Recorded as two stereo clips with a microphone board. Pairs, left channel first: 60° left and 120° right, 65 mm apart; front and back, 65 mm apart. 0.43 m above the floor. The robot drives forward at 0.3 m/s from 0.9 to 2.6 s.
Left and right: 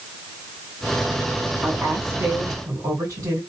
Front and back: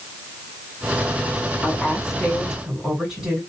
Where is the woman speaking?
90° right, 2.5 m; by 3.4 s 100° right, 2.5 m.